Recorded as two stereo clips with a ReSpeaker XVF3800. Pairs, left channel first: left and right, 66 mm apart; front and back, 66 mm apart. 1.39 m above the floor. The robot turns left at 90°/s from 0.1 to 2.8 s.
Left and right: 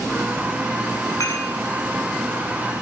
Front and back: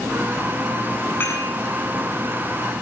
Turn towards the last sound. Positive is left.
turn(degrees=-95)